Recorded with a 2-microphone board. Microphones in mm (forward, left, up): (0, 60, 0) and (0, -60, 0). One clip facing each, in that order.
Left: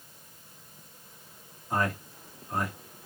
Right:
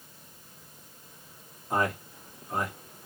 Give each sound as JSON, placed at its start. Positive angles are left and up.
{"t": 1.7, "sound": "a man speaking", "side_deg": -20, "distance_m": 1.4}